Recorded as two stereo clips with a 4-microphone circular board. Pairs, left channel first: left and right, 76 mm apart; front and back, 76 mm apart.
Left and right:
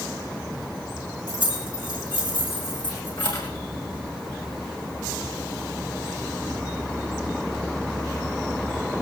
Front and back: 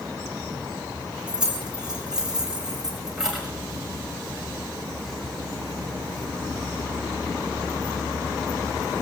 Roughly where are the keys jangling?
Left.